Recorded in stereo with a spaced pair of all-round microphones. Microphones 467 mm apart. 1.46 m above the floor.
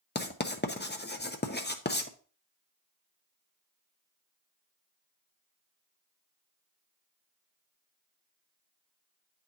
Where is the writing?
20° left (ahead or behind), 0.6 m.